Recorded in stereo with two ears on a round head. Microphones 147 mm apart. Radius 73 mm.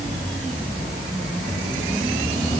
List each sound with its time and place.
Only background noise.